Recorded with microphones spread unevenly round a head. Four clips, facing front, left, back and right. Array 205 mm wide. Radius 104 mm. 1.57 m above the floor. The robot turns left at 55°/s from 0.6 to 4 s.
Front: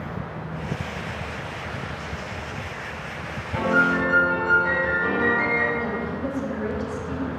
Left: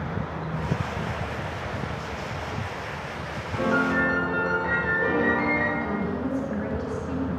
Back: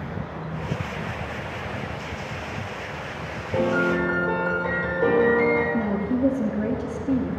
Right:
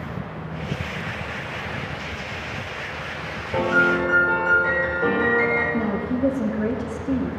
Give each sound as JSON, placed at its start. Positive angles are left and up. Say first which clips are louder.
{"t": 3.5, "sound": "a piano", "louder": "right 4 dB, front 1 dB", "azimuth_deg": -140, "distance_m": 7.5}
{"t": 5.7, "sound": "a woman speaking", "louder": "right 4 dB, back 4 dB", "azimuth_deg": -140, "distance_m": 4.0}